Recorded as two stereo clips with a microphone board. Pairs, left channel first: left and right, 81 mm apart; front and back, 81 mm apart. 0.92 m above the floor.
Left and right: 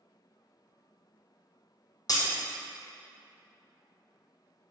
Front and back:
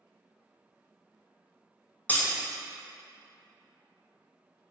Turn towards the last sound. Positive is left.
turn(degrees=65)